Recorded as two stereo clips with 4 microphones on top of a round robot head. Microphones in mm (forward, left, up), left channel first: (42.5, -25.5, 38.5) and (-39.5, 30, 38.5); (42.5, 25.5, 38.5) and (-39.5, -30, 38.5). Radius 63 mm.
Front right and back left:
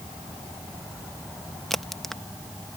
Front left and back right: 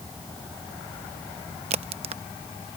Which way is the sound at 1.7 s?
120° right.